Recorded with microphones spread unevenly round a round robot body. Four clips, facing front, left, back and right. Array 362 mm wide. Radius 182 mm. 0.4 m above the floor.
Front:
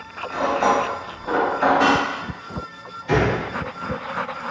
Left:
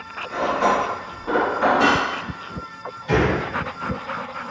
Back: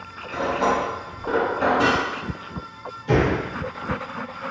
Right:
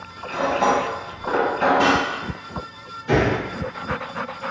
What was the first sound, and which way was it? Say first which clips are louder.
Cutlery clinking: even, front 3 dB; 155° right.